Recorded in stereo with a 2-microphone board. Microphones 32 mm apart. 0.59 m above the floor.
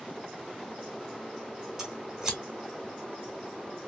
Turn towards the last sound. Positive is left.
turn(degrees=-15)  # may be behind; listen again after turning